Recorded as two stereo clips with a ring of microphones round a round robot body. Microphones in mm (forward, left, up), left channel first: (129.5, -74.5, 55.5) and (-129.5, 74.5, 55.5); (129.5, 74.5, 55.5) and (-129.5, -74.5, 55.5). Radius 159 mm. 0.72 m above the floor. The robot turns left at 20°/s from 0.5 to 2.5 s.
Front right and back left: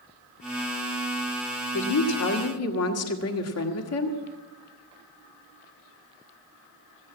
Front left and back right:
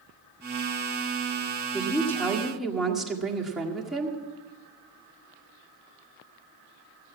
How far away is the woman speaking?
About 1.7 m.